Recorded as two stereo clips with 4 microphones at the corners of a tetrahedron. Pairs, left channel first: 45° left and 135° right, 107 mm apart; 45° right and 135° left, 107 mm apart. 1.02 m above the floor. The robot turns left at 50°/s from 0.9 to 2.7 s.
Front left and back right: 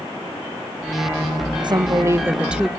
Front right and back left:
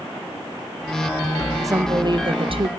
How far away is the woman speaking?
About 0.6 m.